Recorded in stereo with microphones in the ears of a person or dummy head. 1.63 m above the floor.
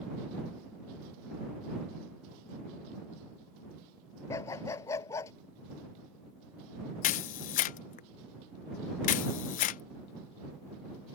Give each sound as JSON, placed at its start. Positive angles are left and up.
{"t": 4.3, "sound": "a dog barking", "side_deg": 20}
{"t": 7.0, "sound": "a camera shutter", "side_deg": 50}